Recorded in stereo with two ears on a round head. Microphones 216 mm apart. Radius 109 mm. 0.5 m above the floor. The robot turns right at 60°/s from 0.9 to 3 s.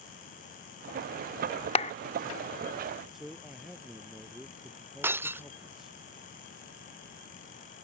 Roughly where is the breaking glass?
Centre.